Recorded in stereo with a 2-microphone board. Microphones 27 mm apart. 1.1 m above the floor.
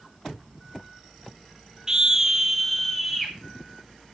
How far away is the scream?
About 0.8 m.